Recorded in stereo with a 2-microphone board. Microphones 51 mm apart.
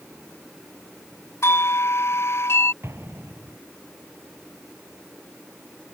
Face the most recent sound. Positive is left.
turn(degrees=-55)  # may be behind; listen again after turning